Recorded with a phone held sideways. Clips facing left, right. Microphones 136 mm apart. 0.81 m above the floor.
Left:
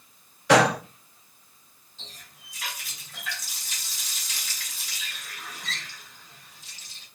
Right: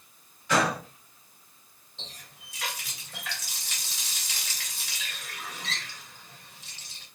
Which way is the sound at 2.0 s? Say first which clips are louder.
Right 2 dB; 70° right (ahead or behind).